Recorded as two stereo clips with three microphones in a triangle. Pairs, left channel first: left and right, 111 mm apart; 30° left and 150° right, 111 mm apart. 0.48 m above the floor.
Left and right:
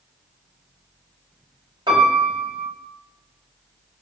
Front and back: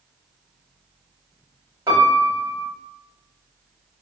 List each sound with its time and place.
1.9 s a piano: 105° right, 1.5 m